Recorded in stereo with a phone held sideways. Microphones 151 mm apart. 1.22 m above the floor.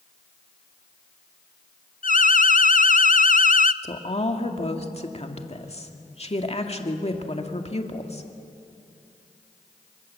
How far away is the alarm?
About 0.5 m.